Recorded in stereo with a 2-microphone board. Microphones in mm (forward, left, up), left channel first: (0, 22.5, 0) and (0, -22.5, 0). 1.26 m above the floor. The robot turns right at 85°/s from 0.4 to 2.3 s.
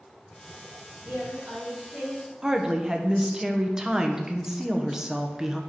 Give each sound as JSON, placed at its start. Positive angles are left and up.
{"t": 1.1, "sound": "a woman speaking", "azimuth_deg": -95, "distance_m": 2.5}
{"t": 2.4, "sound": "a woman speaking", "side_deg": -10, "distance_m": 0.8}